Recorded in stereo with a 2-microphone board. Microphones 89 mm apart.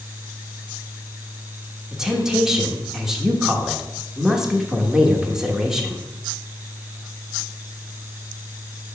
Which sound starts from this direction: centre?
A woman speaking, at 1.9 s.